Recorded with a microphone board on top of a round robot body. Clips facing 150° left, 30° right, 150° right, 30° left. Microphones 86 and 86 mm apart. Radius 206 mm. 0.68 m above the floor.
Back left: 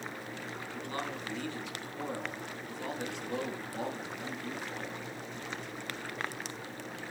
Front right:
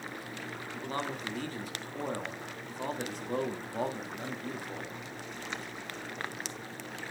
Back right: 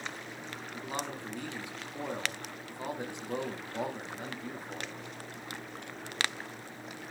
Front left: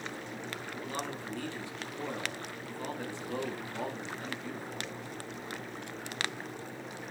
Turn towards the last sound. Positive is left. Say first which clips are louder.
# front right 3 dB, back right 2 dB
turn(degrees=-75)